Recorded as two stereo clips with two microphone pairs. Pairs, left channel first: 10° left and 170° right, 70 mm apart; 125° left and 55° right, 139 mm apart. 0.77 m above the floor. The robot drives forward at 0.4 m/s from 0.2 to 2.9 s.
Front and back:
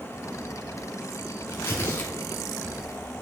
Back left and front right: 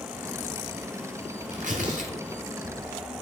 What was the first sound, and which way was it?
Tearing paper, 40° right.